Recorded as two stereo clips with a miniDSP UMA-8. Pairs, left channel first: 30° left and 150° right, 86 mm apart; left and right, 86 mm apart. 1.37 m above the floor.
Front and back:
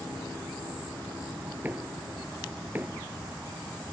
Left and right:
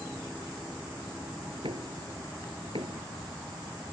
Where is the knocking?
80° right.